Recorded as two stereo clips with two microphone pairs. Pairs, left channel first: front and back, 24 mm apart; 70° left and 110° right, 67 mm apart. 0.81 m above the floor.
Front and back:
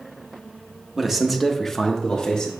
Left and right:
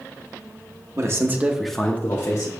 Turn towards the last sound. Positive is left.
turn(degrees=55)